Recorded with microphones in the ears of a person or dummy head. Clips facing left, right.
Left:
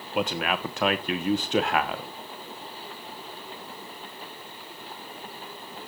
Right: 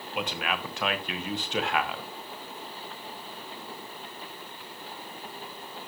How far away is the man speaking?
About 1.2 m.